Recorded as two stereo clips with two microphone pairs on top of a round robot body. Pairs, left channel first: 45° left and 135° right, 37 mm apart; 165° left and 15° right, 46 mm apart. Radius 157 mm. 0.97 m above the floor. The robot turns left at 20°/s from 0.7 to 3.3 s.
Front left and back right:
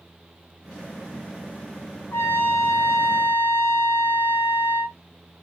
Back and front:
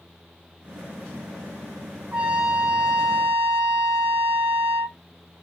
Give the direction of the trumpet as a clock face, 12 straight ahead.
10 o'clock.